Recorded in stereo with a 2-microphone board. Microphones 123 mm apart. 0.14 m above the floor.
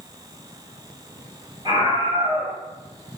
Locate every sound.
1.6 s a scream: 40° right (ahead or behind), 3.5 m